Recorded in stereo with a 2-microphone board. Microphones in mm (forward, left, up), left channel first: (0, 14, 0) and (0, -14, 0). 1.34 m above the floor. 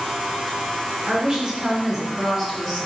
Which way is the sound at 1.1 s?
25° right (ahead or behind).